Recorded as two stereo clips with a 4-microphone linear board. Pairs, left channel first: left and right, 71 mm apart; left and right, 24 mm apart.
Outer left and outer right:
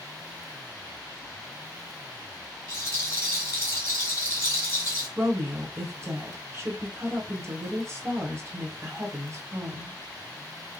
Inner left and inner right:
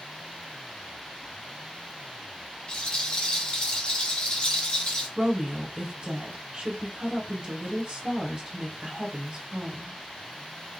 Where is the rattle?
40° left (ahead or behind), 3 m.